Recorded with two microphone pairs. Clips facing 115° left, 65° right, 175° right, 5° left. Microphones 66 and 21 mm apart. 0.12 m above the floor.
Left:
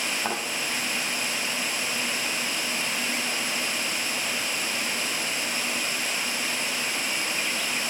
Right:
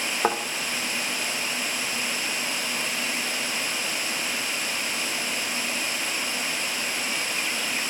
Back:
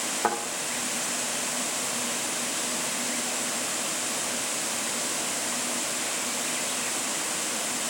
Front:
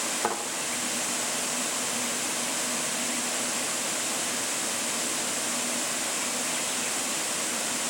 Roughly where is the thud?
Right.